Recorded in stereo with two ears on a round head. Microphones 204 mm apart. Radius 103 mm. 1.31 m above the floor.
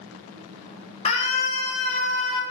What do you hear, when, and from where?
1.1 s a scream: 30° left (ahead or behind), 1.0 m; by 2.4 s 25° left (ahead or behind), 2.5 m